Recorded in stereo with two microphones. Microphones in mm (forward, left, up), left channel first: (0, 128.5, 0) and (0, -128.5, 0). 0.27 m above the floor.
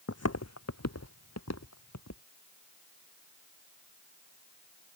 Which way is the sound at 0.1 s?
70° left (ahead or behind).